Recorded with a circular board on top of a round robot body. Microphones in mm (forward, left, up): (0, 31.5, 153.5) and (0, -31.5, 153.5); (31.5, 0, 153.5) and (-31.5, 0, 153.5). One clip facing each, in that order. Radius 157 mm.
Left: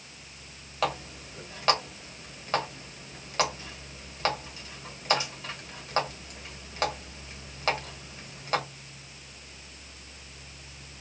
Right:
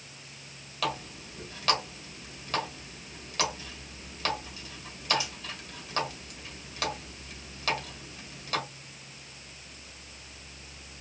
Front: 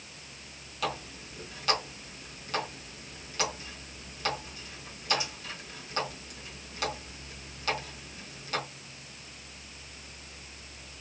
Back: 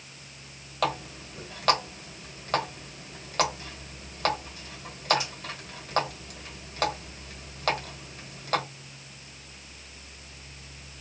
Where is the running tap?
140° left, 1.8 m.